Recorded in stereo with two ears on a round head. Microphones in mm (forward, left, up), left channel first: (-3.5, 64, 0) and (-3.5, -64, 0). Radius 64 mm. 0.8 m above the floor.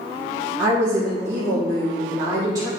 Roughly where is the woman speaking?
Right.